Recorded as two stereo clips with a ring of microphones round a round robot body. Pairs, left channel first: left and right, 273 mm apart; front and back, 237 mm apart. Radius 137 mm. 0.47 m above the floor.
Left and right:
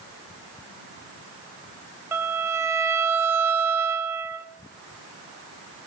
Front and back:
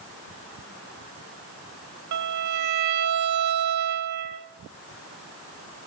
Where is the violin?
170° right, 1.1 m.